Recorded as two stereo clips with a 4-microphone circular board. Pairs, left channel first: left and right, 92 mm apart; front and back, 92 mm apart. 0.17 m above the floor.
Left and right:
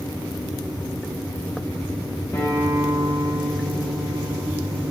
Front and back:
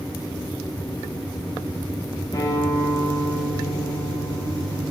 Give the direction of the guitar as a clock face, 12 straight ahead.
11 o'clock.